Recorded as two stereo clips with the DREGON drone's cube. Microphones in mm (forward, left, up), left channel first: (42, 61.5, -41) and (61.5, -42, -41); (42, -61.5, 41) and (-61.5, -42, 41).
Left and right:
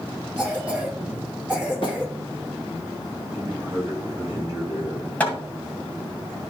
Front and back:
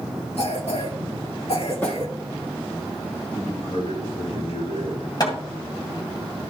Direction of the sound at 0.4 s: Straight ahead.